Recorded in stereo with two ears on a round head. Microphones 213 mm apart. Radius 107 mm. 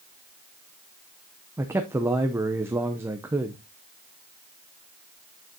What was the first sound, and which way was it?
A man speaking, 10° right (ahead or behind).